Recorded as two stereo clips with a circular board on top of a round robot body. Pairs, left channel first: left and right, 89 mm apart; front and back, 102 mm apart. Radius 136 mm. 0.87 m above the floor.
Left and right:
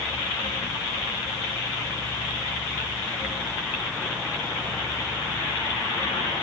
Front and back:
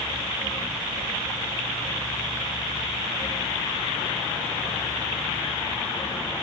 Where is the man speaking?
I don't hear a man speaking.